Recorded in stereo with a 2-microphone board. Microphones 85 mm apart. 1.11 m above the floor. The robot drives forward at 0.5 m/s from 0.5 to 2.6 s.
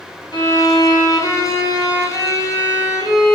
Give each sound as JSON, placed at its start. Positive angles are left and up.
{"t": 0.3, "sound": "a violin", "side_deg": 60, "distance_m": 1.9}